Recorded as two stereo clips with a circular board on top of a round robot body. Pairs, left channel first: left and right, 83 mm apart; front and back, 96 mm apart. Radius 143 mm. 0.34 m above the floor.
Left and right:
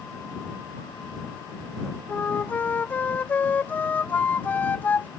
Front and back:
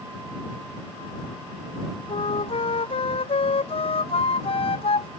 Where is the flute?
20° left.